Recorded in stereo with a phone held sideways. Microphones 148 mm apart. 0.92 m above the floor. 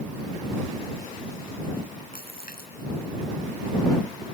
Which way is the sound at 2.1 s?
85° left.